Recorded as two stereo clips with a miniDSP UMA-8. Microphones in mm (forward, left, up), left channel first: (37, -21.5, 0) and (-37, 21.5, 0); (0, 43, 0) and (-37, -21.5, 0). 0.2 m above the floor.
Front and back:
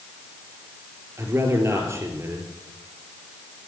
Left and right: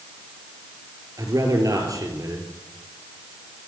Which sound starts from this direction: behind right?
A man speaking, at 1.2 s.